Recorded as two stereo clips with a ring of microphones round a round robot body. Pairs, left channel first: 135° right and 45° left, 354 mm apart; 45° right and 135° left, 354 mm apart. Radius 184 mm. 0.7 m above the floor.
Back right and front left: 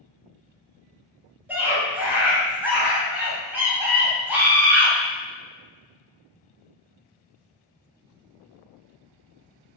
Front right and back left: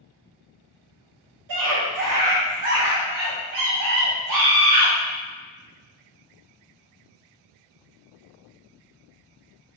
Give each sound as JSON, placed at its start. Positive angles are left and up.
{"t": 1.5, "sound": "a scream", "azimuth_deg": 130, "distance_m": 0.9}